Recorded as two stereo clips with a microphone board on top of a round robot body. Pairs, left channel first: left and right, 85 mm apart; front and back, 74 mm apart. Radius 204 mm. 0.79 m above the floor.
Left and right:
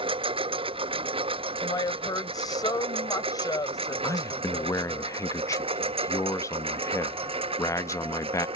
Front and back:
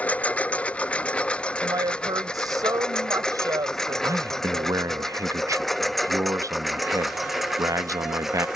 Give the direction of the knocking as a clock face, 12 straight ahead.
I don't hear knocking.